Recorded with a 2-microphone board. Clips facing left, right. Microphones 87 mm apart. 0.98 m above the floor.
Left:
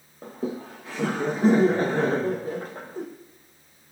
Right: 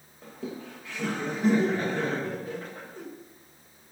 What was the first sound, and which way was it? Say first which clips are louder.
Laughter: left 6 dB; 35° left (ahead or behind).